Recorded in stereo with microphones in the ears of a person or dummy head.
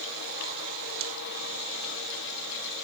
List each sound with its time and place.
Only background noise.